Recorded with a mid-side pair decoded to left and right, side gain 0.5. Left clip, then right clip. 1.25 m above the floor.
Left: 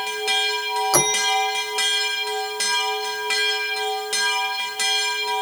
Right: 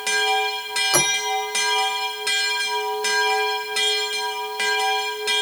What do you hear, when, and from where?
0.9 s a bell: 10° left